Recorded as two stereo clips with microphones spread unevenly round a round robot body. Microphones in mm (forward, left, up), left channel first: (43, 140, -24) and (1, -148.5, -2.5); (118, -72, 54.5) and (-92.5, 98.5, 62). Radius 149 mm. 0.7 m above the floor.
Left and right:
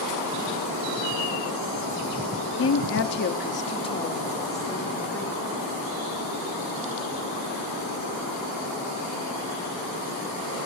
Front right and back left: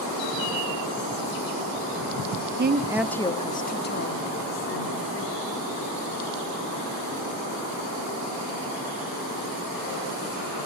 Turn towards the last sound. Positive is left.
turn(degrees=0)